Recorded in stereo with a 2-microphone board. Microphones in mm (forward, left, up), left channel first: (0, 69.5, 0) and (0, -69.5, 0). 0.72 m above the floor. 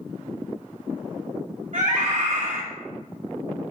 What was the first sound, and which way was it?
A scream, 50° right (ahead or behind).